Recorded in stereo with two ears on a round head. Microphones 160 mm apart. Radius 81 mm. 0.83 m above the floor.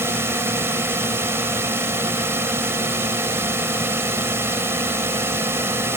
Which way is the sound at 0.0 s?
15° right (ahead or behind).